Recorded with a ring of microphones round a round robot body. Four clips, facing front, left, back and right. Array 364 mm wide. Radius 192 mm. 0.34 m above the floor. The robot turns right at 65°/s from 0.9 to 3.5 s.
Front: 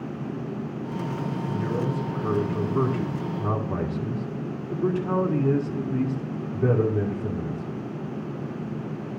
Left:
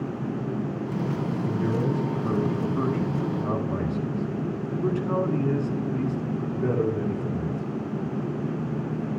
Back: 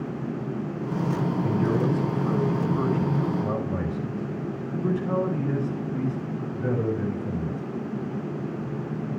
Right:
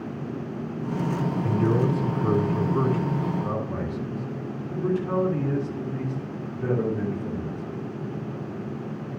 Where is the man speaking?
130° right, 9 m; by 7.8 s 5° left, 9 m.